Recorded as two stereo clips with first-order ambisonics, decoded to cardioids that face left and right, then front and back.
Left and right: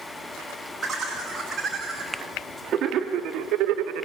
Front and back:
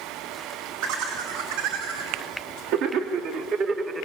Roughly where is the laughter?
Behind.